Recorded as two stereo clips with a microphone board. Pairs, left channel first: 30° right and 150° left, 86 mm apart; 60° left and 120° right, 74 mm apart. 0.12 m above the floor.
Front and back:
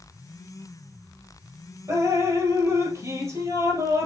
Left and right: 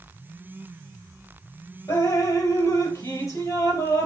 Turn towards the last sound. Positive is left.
turn(degrees=105)